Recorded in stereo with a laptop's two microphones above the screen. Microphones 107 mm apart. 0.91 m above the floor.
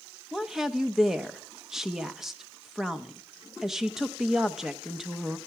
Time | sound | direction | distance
0.3 | a woman speaking | 5° right (ahead or behind) | 0.8 m